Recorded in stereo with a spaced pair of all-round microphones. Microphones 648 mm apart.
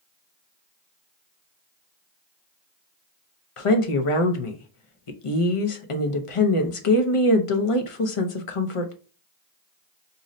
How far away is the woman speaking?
About 0.6 m.